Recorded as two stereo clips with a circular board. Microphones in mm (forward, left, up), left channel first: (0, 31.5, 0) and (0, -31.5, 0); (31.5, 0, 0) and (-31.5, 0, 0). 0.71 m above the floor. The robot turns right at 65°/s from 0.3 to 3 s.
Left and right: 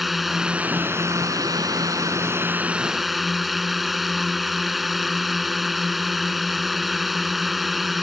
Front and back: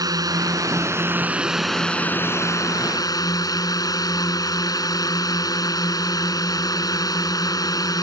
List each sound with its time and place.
0.0 s a drone: straight behind; by 8.0 s 5° right